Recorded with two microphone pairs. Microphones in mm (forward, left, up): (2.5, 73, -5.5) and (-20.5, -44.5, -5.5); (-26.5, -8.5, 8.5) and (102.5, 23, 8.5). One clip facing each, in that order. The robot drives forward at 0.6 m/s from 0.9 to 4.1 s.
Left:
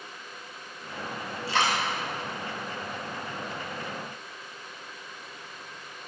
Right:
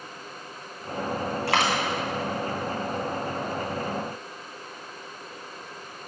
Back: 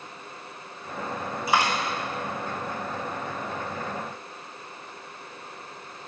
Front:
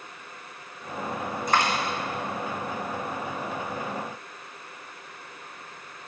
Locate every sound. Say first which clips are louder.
1.5 s a dropped coin: right 2 dB, back 1 dB; 80° right, 1.8 m; by 1.7 s 85° right, 1.8 m